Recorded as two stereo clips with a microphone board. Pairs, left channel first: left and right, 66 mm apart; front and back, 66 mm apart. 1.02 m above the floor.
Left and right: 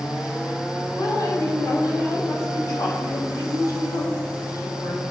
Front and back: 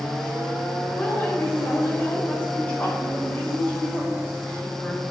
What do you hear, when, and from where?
0.9 s a woman speaking: 65° left, 3.5 m